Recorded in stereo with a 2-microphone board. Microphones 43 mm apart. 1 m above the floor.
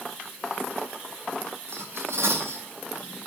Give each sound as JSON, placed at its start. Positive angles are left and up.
{"t": 1.7, "sound": "cutlery clinking", "side_deg": -85, "distance_m": 6.0}